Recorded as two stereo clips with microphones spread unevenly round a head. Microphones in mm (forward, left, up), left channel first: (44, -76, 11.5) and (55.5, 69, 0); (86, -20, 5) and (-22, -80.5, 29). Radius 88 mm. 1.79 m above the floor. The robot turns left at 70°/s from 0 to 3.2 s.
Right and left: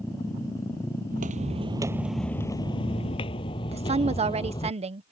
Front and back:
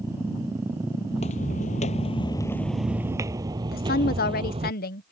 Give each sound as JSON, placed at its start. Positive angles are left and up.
{"t": 1.1, "sound": "footsteps", "azimuth_deg": 90}
{"t": 3.7, "sound": "a woman speaking", "azimuth_deg": 35}